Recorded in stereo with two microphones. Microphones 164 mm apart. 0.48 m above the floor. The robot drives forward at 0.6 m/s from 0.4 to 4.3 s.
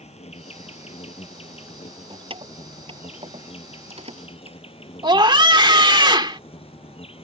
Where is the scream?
30° right (ahead or behind).